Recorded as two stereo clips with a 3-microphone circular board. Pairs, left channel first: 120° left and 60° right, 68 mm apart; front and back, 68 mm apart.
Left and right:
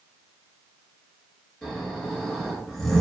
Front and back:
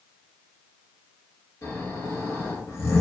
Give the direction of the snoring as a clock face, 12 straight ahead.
11 o'clock.